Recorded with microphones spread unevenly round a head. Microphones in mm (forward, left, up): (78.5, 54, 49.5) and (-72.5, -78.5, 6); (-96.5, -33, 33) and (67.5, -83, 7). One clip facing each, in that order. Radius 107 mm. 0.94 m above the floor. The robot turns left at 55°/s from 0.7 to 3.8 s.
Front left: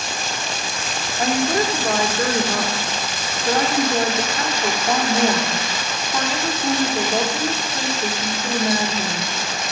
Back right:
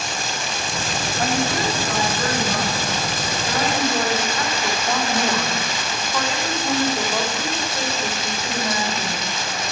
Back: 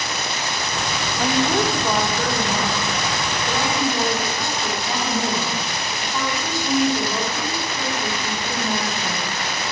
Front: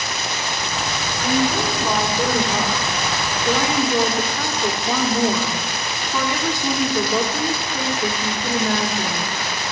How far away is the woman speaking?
About 2.0 m.